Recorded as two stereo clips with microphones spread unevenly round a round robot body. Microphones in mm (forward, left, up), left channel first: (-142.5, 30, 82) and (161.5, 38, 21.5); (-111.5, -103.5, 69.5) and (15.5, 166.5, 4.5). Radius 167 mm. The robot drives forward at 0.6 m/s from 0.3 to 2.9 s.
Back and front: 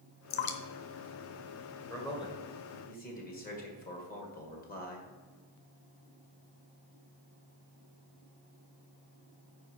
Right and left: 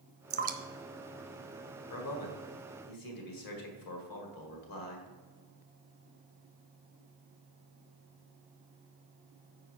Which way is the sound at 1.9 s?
90° right.